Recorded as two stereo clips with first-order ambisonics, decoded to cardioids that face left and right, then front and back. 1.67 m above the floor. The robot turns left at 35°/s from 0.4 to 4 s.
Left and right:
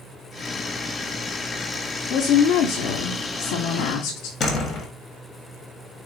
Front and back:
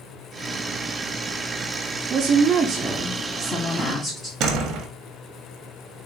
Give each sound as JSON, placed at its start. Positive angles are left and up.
{"t": 2.1, "sound": "a woman speaking", "azimuth_deg": 125, "distance_m": 0.7}
{"t": 4.4, "sound": "a door slam", "azimuth_deg": 145, "distance_m": 0.9}